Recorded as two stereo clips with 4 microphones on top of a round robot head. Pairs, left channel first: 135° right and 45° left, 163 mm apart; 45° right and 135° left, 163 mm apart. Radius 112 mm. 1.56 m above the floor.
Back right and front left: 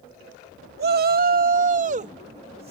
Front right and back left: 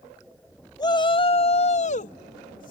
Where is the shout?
20° left; by 2.7 s 10° right.